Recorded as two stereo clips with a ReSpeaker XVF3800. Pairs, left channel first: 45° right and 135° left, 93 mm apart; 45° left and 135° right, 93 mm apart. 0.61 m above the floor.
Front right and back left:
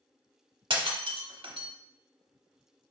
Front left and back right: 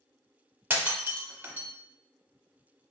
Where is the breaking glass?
155° left, 0.7 m.